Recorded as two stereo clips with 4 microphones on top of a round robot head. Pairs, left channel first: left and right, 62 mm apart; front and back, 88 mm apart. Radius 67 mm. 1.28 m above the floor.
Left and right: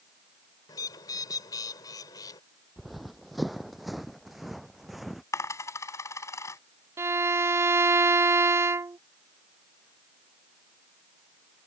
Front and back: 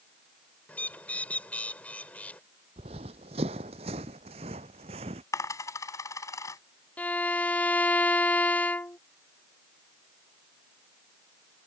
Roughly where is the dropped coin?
Ahead left.